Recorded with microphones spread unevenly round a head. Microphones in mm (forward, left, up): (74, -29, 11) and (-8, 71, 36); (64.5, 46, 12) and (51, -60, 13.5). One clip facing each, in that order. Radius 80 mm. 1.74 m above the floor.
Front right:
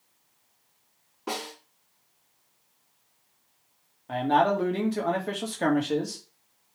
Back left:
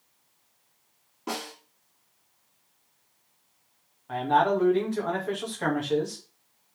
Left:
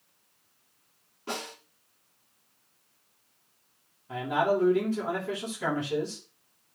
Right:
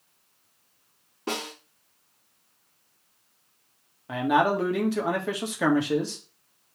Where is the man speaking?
115° right, 2 m.